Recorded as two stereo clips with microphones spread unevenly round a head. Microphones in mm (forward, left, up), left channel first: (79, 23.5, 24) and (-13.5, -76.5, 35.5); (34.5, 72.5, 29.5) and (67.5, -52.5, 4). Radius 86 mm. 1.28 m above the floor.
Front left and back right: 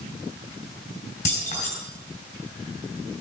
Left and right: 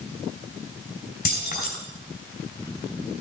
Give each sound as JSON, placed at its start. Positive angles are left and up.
{"t": 1.2, "sound": "keys jangling", "azimuth_deg": 100, "distance_m": 4.0}